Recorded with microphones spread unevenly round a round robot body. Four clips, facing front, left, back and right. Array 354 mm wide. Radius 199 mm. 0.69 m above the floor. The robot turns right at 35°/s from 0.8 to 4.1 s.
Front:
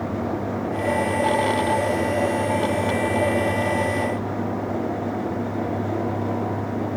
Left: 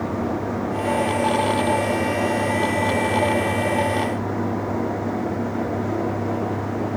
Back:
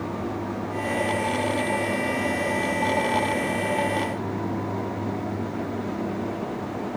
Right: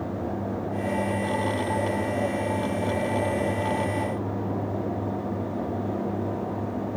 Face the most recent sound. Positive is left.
No sound to turn to.